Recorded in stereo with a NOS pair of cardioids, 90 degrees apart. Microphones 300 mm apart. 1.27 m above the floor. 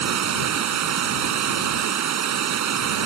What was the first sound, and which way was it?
Running water, 65° right.